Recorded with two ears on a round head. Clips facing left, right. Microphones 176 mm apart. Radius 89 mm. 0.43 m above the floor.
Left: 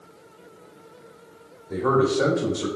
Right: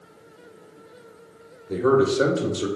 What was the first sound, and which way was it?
A man speaking, 35° right (ahead or behind).